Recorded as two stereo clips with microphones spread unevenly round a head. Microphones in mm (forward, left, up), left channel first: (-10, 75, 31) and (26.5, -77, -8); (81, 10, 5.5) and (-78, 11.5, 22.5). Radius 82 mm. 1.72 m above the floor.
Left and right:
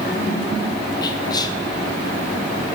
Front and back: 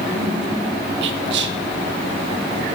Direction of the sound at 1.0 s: 170° left.